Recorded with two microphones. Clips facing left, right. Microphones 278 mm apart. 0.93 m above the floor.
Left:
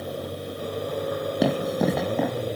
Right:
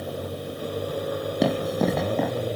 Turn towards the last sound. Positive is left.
turn(degrees=5)  # may be behind; listen again after turning